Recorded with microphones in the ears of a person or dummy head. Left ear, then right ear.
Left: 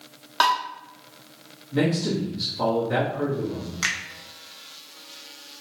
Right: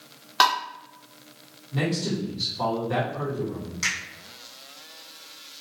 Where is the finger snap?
30° left (ahead or behind), 1.1 m.